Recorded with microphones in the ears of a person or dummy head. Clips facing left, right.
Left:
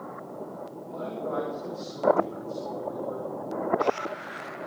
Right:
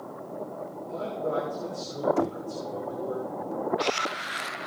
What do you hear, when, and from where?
0.8 s a man speaking: 30° right (ahead or behind), 6 m
2.2 s knocking: 55° right (ahead or behind), 0.7 m